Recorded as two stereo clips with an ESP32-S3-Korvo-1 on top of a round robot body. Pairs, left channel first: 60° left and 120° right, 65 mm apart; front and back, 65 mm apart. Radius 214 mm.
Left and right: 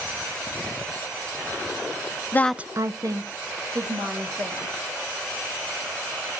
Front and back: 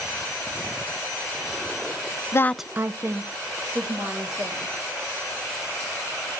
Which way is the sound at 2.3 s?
20° left.